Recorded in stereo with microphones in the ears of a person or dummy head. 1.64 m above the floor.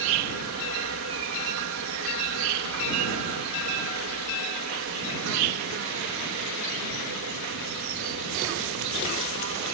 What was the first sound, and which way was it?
An insect, 70° right (ahead or behind).